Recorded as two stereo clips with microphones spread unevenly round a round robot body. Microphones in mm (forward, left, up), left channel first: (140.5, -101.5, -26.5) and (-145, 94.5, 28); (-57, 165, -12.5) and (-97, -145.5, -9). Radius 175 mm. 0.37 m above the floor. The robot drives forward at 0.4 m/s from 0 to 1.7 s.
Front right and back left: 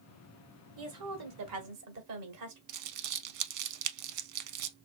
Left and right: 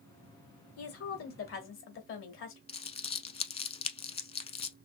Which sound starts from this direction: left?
A woman speaking, at 0.8 s.